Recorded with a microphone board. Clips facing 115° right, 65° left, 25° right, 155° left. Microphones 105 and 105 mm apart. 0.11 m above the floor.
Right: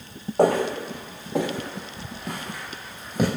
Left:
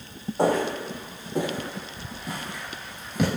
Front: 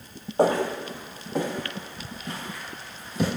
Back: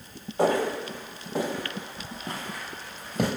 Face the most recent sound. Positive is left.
turn(degrees=-165)